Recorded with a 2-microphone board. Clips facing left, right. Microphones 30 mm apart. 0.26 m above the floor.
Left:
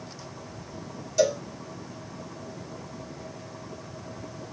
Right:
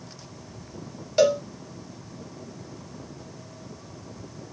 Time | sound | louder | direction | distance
1.2 | a cowbell | right 4 dB | 50° right (ahead or behind) | 1.6 m